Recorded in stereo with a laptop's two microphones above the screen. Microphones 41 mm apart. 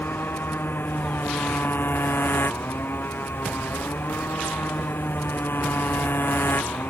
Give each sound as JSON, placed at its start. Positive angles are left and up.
{"t": 0.0, "sound": "a motorcycle", "side_deg": 55}